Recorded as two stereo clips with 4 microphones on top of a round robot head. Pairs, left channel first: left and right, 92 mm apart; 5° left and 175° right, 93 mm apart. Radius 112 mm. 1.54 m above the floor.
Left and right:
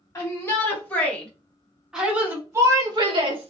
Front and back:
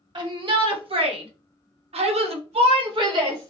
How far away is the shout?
About 1.8 m.